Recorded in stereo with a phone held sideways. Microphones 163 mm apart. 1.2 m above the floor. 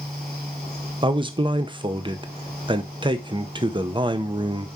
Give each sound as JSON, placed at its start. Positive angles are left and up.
{"t": 0.0, "sound": "a fan", "side_deg": -75, "distance_m": 4.0}
{"t": 1.0, "sound": "a man speaking", "side_deg": -30, "distance_m": 0.8}